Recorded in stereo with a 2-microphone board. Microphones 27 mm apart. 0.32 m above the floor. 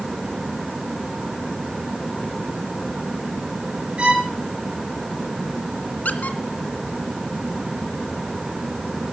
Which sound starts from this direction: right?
A violin, at 4.0 s.